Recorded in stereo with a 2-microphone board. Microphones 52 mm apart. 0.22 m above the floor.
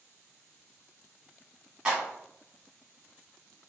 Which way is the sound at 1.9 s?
15° right (ahead or behind).